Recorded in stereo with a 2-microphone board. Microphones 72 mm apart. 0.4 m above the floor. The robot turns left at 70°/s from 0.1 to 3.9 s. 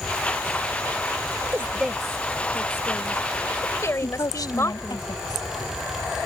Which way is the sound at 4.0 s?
65° left (ahead or behind).